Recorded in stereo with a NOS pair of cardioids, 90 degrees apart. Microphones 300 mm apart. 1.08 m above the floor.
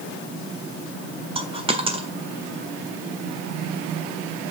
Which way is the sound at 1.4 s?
20° right.